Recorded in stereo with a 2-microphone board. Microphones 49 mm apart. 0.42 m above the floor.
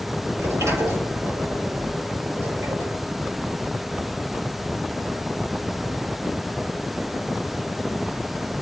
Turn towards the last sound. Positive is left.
turn(degrees=-75)  # may be behind; listen again after turning